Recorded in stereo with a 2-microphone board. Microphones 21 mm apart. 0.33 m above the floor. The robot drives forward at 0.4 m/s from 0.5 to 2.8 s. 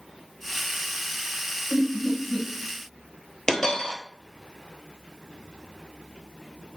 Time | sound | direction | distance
1.7 | laughter | 20° left (ahead or behind) | 1.1 m
3.5 | a dropped coin | 25° left (ahead or behind) | 0.8 m